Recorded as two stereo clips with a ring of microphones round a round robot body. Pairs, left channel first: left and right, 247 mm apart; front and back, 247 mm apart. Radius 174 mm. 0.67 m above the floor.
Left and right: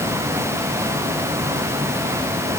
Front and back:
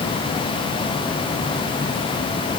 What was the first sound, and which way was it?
Only background noise.